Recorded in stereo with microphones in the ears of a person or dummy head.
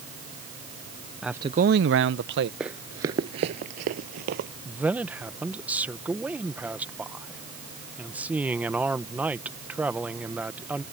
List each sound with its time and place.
1.2 s a man speaking: centre (ahead or behind); by 2.5 s 50° right (ahead or behind)
2.6 s running footsteps: 5° right (ahead or behind); by 4.5 s 50° right (ahead or behind)
4.7 s a man speaking: 5° right (ahead or behind)